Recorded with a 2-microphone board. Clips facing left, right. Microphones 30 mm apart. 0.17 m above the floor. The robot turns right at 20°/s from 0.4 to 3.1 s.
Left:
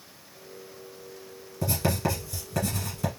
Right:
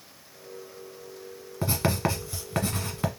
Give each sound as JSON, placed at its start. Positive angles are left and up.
{"t": 1.6, "sound": "writing", "side_deg": -35, "distance_m": 1.3}